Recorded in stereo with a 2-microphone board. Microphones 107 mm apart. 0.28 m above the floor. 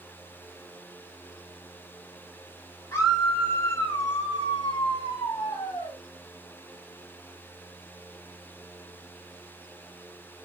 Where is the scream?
25° left (ahead or behind), 2 m; by 6.0 s 40° left (ahead or behind), 1.8 m.